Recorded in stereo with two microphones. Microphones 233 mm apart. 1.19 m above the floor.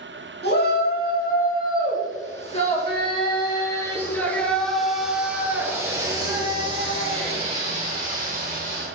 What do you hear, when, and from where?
0.4 s a shout: 45° left (ahead or behind), 3 m; by 8.9 s 35° right (ahead or behind), 3.5 m